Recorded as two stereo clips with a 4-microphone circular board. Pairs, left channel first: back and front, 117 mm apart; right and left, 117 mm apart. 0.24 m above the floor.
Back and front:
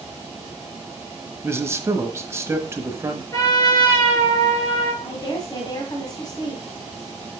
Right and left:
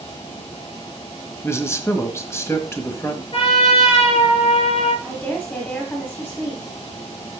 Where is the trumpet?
125° right, 3.5 m.